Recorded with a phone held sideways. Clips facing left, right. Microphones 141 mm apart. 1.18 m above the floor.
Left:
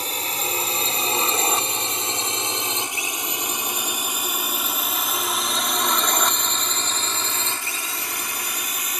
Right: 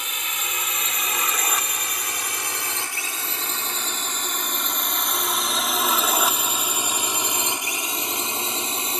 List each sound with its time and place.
0.0 s a drone: 35° left (ahead or behind); by 9.0 s 25° right (ahead or behind)